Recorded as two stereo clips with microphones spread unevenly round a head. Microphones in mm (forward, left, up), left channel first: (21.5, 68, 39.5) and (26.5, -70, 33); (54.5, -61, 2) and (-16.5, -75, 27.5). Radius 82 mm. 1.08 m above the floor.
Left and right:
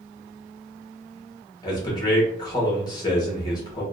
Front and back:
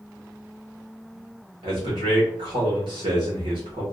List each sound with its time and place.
1.6 s a man speaking: 155° left, 1.2 m